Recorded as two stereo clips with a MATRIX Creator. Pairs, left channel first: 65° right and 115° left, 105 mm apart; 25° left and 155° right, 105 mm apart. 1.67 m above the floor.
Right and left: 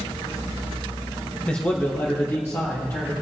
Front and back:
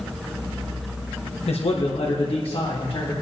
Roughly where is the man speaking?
Ahead.